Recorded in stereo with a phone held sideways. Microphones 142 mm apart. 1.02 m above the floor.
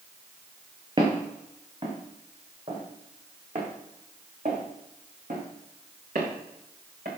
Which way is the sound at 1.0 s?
40° right (ahead or behind).